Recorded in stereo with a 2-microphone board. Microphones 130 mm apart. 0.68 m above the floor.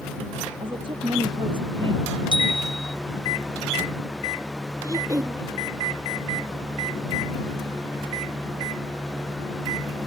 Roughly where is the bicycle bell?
Right.